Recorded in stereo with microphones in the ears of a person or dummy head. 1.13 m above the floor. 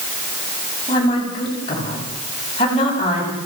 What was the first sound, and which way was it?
A woman speaking, 30° left (ahead or behind).